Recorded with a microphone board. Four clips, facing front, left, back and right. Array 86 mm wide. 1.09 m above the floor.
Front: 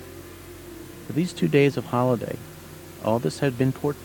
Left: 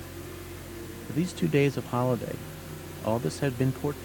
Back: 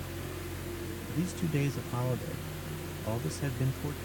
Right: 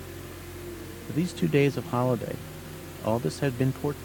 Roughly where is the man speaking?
Ahead.